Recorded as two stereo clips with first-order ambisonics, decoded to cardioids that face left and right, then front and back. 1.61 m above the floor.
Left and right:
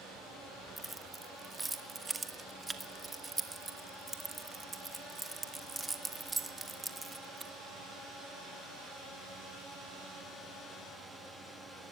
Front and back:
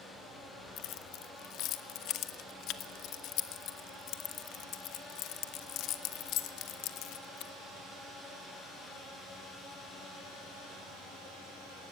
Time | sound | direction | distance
0.8 | keys jangling | 15° right | 1.2 m